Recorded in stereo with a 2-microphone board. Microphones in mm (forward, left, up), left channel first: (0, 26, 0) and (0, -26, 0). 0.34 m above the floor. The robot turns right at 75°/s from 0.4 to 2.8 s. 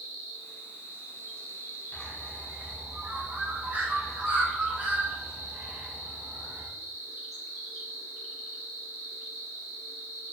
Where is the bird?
30° left (ahead or behind), 0.6 m; by 6.7 s 35° right (ahead or behind), 0.6 m.